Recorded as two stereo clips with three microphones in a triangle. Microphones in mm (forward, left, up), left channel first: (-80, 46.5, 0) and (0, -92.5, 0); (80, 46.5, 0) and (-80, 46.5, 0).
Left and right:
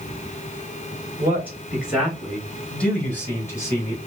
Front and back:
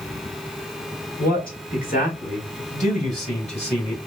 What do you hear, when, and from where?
1.2 s a man speaking: 15° left, 2.5 m; by 4.0 s 50° left, 3 m